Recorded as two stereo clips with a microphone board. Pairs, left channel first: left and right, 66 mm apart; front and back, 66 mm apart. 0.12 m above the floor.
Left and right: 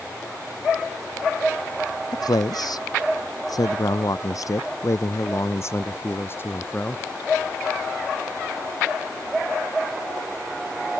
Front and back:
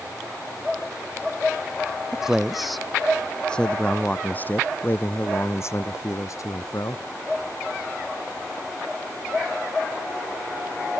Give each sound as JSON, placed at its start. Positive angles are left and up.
{"t": 2.1, "sound": "a man speaking", "azimuth_deg": 100}